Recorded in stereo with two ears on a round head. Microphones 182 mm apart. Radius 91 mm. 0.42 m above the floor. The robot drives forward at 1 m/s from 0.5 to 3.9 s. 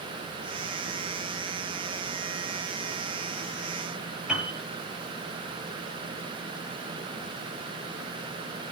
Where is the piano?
5° right (ahead or behind), 6.5 m.